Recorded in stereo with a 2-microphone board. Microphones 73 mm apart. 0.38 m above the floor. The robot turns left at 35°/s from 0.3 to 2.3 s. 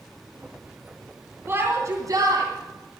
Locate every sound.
1.5 s a shout: 30° right (ahead or behind), 2.5 m; by 2.5 s 55° right (ahead or behind), 2.5 m